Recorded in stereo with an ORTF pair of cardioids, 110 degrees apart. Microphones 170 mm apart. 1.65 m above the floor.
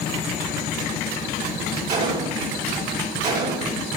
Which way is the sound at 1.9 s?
60° right.